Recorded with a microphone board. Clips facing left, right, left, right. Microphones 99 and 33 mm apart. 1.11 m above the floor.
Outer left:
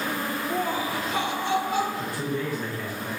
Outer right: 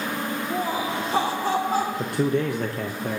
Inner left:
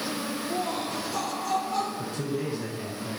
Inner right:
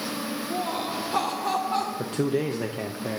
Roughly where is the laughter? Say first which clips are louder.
Outer right 1 dB, inner right 2 dB; centre.